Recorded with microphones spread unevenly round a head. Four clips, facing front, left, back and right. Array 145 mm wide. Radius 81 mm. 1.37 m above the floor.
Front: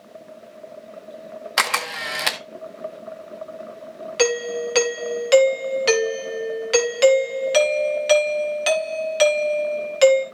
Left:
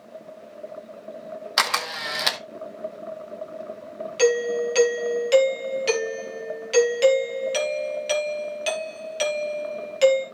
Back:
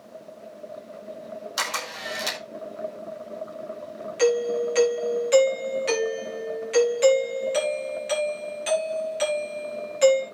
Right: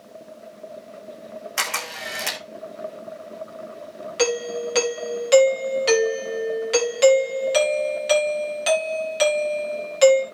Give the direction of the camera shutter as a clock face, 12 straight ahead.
11 o'clock.